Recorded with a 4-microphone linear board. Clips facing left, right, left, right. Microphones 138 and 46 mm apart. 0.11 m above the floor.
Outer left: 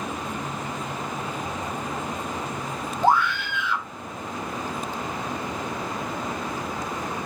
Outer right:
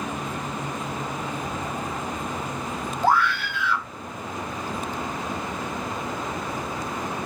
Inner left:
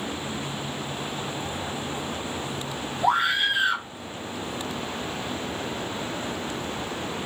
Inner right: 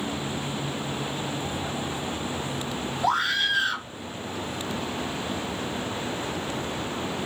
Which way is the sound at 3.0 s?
20° left (ahead or behind).